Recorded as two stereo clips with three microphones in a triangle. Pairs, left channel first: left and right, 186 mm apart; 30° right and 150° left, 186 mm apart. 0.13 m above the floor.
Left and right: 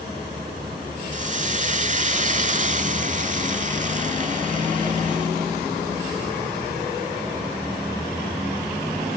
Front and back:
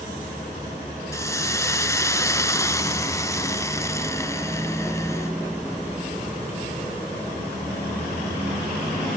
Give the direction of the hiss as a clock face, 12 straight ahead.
3 o'clock.